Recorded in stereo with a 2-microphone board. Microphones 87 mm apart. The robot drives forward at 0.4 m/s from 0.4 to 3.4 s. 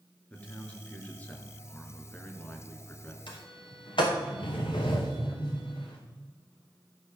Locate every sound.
0.3 s a man speaking: 15° left (ahead or behind), 2 m; by 3.2 s 20° left (ahead or behind), 1.7 m
3.3 s a sliding door: 65° left (ahead or behind), 3 m